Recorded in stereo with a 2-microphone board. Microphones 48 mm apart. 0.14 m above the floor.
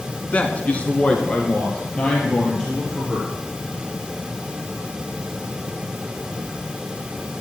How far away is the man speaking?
About 1.2 m.